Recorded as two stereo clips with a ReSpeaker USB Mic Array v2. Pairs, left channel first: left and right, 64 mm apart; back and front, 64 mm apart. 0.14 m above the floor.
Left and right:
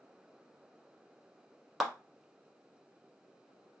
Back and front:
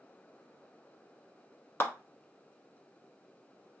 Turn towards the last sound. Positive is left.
turn(degrees=-175)